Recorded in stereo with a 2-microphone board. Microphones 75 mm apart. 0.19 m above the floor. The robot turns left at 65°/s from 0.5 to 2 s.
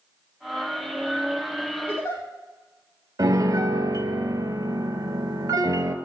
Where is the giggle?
25° left (ahead or behind), 3 m; by 2.2 s 35° left (ahead or behind), 3 m.